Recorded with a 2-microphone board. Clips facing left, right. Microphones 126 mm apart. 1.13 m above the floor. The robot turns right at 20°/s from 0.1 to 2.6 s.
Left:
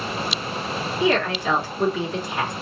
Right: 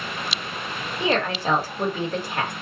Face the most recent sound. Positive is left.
turn(degrees=-120)